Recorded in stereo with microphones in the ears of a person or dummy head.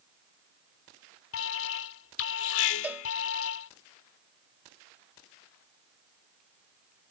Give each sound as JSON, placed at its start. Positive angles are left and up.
{"t": 1.3, "sound": "an alarm", "side_deg": 75}
{"t": 2.8, "sound": "a cowbell", "side_deg": -10}